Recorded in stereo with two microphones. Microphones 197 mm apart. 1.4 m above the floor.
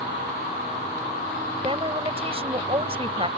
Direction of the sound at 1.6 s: 30° right (ahead or behind).